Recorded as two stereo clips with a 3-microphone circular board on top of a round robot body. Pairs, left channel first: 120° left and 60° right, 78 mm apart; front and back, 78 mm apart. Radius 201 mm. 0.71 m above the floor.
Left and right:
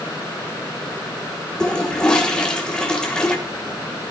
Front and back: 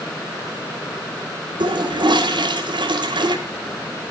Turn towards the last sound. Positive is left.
turn(degrees=-160)